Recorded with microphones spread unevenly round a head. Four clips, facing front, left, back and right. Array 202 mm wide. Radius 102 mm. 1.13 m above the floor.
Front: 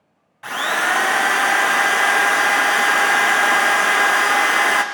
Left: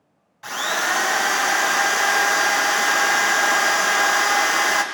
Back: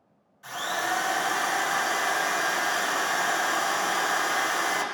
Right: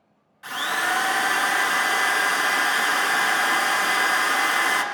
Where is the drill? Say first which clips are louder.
Left 2 dB, front 9 dB; 15° left, 0.7 m.